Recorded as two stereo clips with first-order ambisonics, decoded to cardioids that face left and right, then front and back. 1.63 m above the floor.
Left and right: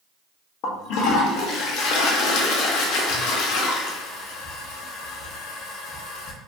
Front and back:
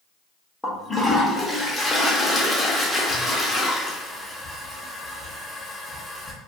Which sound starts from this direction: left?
A toilet flushing, at 0.6 s.